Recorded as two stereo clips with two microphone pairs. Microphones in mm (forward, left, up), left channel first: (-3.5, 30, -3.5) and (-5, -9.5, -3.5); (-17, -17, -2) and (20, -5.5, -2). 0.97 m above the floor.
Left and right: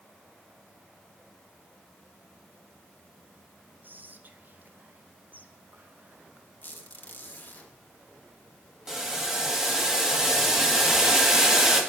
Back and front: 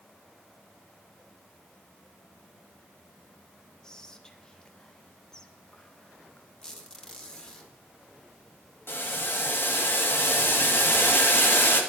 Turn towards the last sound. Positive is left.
turn(degrees=-165)